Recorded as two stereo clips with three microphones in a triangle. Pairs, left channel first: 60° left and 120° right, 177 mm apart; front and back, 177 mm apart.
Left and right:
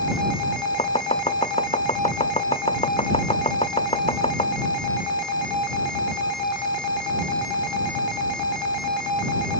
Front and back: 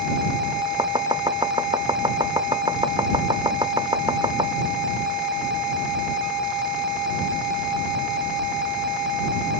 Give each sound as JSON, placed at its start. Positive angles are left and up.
{"t": 0.8, "sound": "chopping", "azimuth_deg": 115}